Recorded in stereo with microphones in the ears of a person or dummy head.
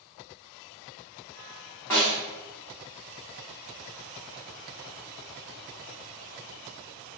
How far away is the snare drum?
About 0.9 m.